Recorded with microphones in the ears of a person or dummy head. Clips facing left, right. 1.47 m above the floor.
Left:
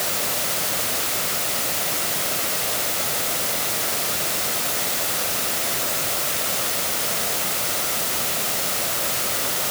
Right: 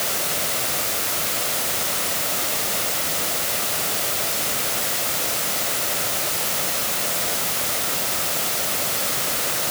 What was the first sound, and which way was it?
Only background noise.